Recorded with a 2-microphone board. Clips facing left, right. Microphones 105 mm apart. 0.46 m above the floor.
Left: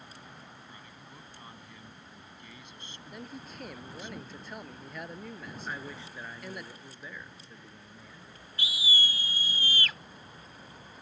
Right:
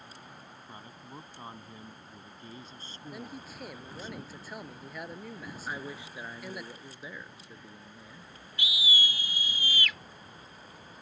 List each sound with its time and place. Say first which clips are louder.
0.7 s a man speaking: right 4 dB; 35° right (ahead or behind)
3.1 s a man speaking: even; 5° right (ahead or behind)
5.7 s a man speaking: right 2 dB; 15° right (ahead or behind)
8.6 s a scream: right 1 dB; 35° left (ahead or behind)